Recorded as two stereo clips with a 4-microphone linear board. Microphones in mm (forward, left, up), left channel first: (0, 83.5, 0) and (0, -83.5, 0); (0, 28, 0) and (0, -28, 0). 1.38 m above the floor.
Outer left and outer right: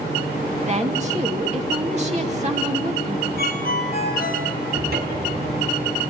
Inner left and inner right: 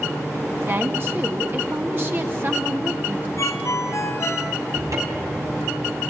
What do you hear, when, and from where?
0.6 s a woman speaking: 40° right (ahead or behind), 2 m
3.4 s a ringtone: 60° left (ahead or behind), 4 m
4.7 s a cupboard door: 65° right (ahead or behind), 4.5 m